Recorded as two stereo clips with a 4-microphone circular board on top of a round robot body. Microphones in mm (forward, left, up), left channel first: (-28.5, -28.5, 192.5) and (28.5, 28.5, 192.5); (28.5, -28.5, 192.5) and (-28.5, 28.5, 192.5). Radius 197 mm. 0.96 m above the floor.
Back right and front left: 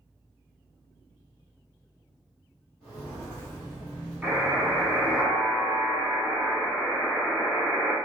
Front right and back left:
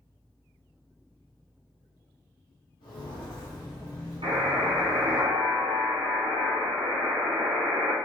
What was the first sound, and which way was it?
Footsteps, 55° right.